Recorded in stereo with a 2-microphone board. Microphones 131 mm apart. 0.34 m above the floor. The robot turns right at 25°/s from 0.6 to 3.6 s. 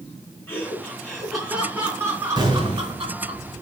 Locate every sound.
0.5 s laughter: 165° left, 4 m; by 3.4 s 125° right, 4 m
2.4 s an explosion: 30° right (ahead or behind), 4.5 m; by 3.0 s 45° right (ahead or behind), 4.5 m